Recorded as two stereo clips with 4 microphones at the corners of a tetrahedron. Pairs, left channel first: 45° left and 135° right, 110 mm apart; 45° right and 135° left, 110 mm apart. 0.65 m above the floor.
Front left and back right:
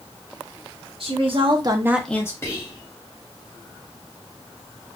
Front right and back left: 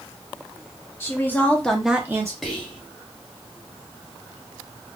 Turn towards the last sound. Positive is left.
turn(degrees=45)